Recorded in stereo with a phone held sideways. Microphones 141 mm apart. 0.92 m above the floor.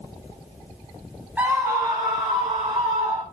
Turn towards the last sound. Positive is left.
turn(degrees=-40)  # may be behind; listen again after turning